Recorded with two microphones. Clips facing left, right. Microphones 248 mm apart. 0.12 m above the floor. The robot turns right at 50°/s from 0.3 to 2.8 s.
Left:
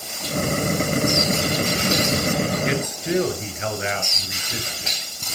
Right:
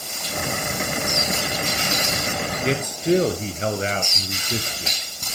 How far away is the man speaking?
About 2 m.